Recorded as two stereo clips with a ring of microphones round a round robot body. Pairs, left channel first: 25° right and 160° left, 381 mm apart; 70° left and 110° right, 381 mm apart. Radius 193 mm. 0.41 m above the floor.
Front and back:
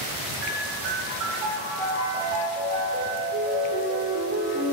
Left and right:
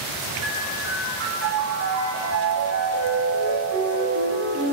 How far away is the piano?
About 0.8 m.